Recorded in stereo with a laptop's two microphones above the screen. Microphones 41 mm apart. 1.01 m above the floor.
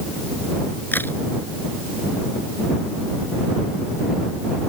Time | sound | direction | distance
0.9 | a crack | 50° left (ahead or behind) | ?